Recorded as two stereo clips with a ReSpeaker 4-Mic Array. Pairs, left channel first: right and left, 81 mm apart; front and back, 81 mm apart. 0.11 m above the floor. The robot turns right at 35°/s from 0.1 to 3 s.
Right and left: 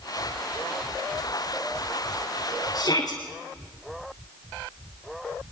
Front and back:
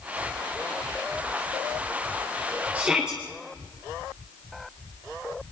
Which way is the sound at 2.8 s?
110° right.